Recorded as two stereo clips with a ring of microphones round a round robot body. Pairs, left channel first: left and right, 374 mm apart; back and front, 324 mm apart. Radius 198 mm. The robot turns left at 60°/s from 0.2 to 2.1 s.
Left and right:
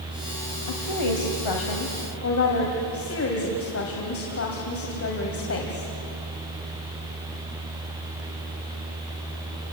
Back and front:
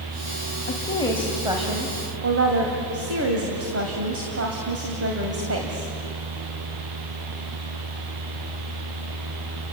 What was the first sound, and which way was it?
A woman speaking, 125° left.